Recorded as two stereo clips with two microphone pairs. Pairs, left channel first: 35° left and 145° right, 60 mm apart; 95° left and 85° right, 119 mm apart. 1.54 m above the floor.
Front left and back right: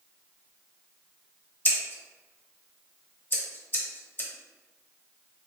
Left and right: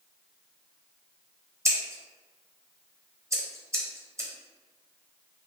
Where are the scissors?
20° right, 0.8 m.